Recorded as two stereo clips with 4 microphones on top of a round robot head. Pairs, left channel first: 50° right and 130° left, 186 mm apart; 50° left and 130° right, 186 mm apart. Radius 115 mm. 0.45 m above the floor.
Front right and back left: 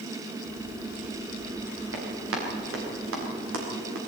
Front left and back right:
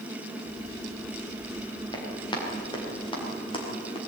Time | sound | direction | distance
1.9 | running footsteps | 115° left | 8.5 m